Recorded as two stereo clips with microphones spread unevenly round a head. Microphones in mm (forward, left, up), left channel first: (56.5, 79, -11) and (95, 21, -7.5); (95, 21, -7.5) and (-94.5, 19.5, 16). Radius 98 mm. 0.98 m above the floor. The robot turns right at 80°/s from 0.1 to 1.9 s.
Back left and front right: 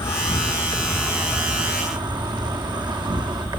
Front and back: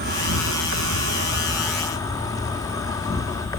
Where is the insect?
140° left, 1.0 m; by 3.6 s 75° right, 1.0 m.